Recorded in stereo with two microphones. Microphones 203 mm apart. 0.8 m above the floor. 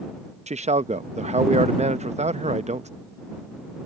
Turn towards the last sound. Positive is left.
turn(degrees=-35)  # may be behind; listen again after turning